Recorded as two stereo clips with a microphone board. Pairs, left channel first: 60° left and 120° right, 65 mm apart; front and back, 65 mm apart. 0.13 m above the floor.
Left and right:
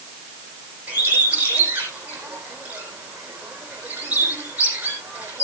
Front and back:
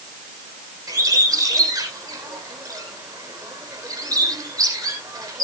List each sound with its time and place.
0.9 s a bird: 175° left, 4 m